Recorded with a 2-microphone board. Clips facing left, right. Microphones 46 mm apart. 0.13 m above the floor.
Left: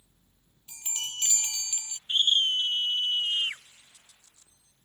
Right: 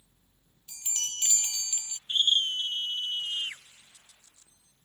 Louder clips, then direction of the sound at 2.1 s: Left 2 dB; 35° left (ahead or behind).